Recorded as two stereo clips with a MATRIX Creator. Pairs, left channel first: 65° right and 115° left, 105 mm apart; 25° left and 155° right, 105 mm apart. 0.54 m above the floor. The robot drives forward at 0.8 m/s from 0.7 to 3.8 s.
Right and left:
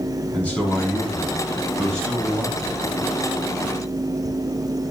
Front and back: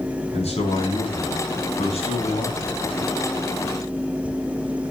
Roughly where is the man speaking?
Ahead.